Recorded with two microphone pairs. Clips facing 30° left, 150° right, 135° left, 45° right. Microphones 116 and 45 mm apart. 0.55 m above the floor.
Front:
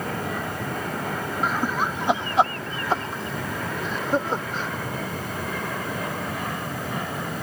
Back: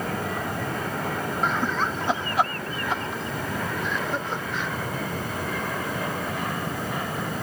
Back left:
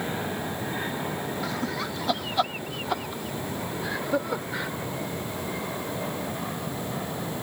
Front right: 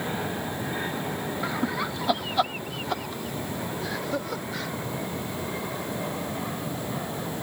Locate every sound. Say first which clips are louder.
1.4 s laughter: front 1 dB, front right 2 dB; 50° right; by 4.7 s 70° left